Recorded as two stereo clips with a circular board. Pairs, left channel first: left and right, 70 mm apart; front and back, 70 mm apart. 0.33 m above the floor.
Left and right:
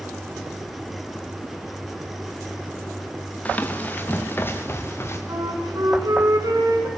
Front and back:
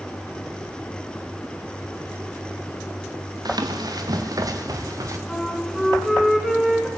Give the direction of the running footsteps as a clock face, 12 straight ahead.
7 o'clock.